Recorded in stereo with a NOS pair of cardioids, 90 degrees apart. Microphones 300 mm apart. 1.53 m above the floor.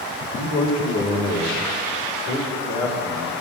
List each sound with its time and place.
0.3 s a man speaking: 45° left, 2.5 m; by 3.3 s 75° left, 5.5 m